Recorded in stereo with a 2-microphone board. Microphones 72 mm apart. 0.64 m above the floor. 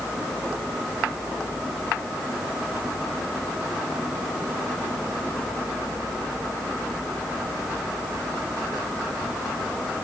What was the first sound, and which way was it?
Only background noise.